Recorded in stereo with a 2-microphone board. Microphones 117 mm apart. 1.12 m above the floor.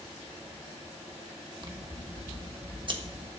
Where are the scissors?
45° right (ahead or behind), 1.4 m.